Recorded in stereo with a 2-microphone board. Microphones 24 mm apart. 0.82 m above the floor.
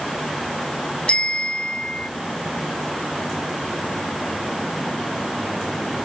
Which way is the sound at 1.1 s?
45° left (ahead or behind).